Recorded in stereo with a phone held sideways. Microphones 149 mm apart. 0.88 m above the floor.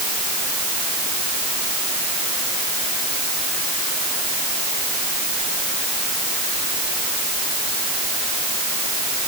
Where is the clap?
No clap in this recording.